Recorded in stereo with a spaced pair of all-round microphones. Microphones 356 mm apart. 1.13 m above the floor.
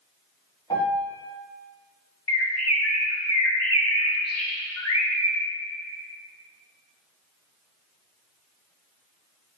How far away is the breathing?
No breathing in this recording.